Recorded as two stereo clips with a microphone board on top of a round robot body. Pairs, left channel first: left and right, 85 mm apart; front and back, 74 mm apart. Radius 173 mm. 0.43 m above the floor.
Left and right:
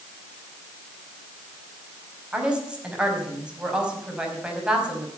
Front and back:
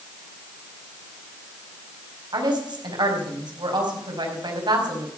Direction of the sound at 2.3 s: 170° right.